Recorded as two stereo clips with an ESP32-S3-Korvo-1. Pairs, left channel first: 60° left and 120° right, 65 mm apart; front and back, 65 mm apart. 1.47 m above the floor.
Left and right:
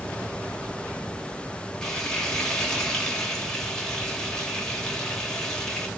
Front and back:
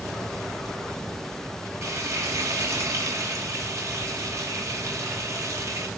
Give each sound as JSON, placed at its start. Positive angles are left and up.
{"t": 1.8, "sound": "frying", "azimuth_deg": 140, "distance_m": 3.0}